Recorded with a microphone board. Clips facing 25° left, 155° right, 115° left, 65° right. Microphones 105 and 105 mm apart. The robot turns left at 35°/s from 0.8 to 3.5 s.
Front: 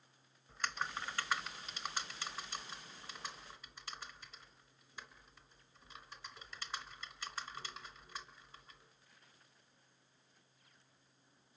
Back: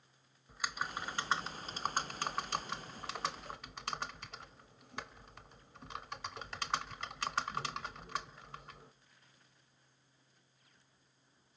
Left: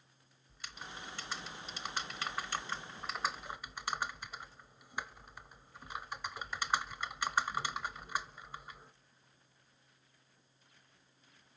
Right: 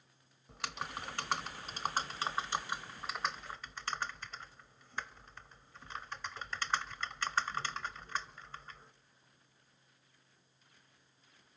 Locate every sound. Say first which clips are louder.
0.5 s typing on a keyboard: back 1 dB, right 8 dB; 75° right, 0.9 m; by 8.9 s 170° right, 0.9 m